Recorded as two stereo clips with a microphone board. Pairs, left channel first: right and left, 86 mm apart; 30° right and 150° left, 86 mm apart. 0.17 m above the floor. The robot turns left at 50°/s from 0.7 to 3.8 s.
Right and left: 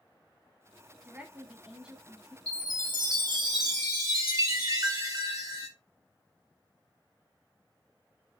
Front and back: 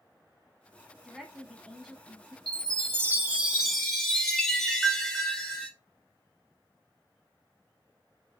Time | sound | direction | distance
1.0 | a woman speaking | 75° left | 1.0 m
2.5 | a chime | 120° left | 1.6 m